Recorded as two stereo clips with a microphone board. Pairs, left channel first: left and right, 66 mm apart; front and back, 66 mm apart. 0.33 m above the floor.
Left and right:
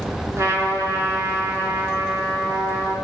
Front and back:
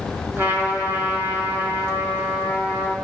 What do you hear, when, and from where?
0.4 s a trumpet: 120° right, 4 m